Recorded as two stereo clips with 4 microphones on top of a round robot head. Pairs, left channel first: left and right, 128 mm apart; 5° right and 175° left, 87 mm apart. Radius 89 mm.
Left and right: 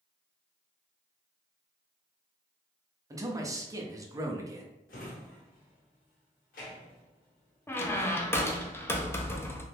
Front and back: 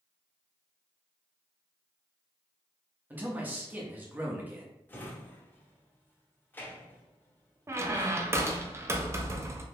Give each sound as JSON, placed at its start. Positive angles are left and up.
{"t": 3.1, "sound": "a man speaking", "azimuth_deg": -130, "distance_m": 0.6}
{"t": 4.9, "sound": "a drawer", "azimuth_deg": 65, "distance_m": 0.8}
{"t": 7.7, "sound": "a squeak", "azimuth_deg": 145, "distance_m": 0.5}